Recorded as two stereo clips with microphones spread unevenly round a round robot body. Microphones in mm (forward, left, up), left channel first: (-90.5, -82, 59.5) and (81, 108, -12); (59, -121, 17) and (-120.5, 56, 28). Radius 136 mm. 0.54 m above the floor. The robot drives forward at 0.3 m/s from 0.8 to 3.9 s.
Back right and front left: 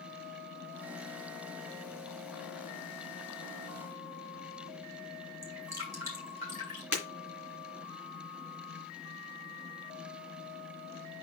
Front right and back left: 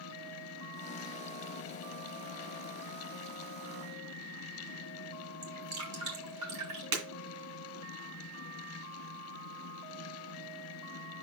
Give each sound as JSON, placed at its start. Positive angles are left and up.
{"t": 5.4, "sound": "dripping", "azimuth_deg": 125, "distance_m": 4.5}
{"t": 6.9, "sound": "breaking glass", "azimuth_deg": 130, "distance_m": 2.5}